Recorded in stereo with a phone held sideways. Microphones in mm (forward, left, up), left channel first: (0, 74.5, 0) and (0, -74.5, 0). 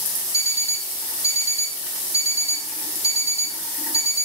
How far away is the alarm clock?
About 2.5 m.